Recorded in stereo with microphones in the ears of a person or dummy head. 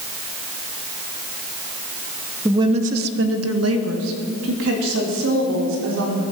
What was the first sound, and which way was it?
A woman speaking, 15° right (ahead or behind).